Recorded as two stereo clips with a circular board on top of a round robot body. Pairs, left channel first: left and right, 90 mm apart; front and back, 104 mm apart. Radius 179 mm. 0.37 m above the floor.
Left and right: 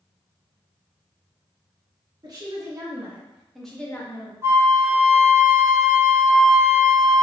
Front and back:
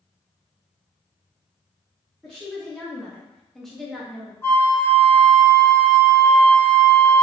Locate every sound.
2.2 s a woman speaking: 85° right, 1.1 m; by 4.3 s 90° left, 0.9 m
4.4 s a flute: 50° right, 1.0 m